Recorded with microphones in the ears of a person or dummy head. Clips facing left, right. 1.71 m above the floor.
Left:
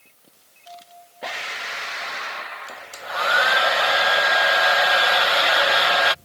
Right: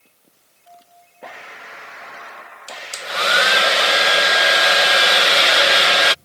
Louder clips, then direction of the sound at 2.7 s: Right 5 dB; 45° right (ahead or behind).